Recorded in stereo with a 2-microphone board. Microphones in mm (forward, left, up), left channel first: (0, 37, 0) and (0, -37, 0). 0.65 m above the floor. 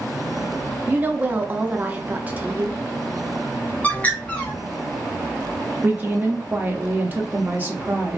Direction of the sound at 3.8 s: 20° left (ahead or behind).